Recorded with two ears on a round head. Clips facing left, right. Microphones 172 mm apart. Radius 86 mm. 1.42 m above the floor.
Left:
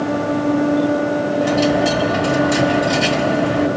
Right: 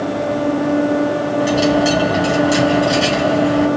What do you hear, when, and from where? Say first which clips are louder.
1.4 s a dropped coin: right 2 dB; 5° right (ahead or behind), 3.5 m